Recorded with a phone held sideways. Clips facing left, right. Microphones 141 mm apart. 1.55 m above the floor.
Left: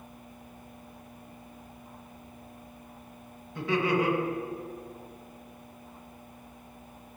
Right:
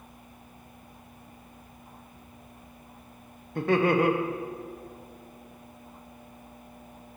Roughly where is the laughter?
Right.